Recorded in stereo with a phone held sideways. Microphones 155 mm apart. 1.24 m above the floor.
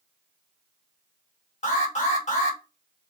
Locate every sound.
1.6 s an alarm: 50° left (ahead or behind), 3 m